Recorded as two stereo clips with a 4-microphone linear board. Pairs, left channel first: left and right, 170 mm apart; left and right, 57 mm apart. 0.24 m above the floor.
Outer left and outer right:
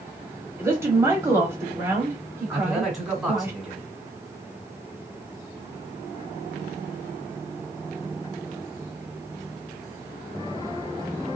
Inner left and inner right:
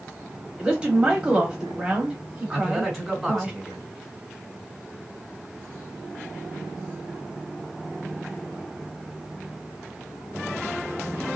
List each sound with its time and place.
0.6 s a woman speaking: 15° right (ahead or behind), 1.0 m
2.5 s a man speaking: 5° right (ahead or behind), 1.5 m